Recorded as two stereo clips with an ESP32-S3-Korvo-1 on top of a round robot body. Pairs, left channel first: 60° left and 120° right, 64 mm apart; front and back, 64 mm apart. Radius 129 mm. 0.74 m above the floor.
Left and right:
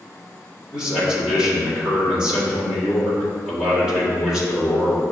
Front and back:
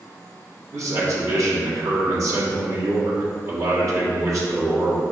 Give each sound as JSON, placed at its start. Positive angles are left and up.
{"t": 0.7, "sound": "a man speaking", "azimuth_deg": 165, "distance_m": 1.6}